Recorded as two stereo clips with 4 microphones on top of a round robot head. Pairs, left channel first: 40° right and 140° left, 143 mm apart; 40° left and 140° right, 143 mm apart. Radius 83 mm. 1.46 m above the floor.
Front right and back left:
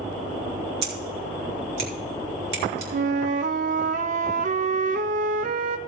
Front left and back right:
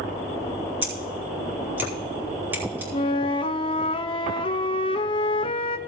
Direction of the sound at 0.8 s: 145° left.